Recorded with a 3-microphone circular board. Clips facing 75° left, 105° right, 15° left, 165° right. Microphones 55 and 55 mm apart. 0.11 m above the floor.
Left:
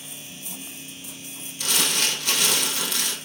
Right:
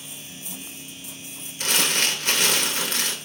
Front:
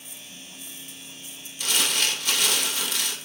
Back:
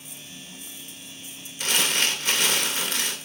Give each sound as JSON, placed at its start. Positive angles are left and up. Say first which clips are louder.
{"t": 1.6, "sound": "crumpling", "louder": "right 2 dB, back 2 dB", "azimuth_deg": -135, "distance_m": 0.8}